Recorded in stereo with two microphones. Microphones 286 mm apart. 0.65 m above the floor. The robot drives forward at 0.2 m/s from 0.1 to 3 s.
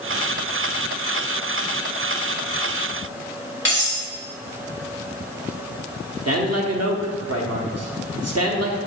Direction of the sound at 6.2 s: 60° right (ahead or behind).